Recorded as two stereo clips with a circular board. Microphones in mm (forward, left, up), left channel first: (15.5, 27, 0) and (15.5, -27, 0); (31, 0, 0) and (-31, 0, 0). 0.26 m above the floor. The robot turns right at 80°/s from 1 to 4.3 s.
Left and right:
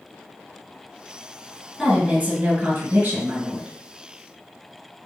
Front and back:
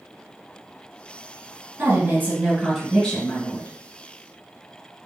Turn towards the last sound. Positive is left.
turn(degrees=25)